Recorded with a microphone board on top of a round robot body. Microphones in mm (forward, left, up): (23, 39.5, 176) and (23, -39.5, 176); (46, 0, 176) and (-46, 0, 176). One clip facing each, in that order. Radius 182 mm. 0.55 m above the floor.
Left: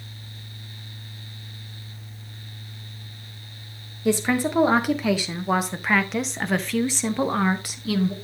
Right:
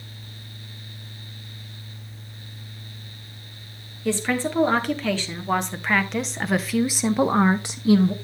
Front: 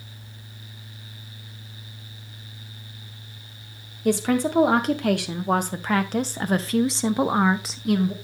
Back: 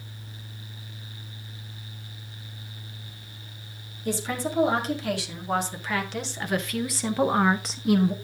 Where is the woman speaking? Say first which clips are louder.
Left 2 dB, front 8 dB; 15° left, 2 m; by 8.1 s 115° right, 1.1 m.